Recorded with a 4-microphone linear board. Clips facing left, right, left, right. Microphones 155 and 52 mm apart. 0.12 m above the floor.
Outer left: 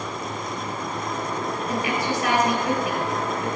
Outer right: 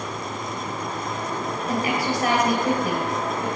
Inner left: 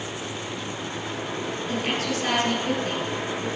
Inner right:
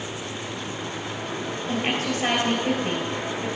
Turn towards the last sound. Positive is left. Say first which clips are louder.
# outer right 2 dB, inner right 2 dB
turn(degrees=-35)  # may be behind; listen again after turning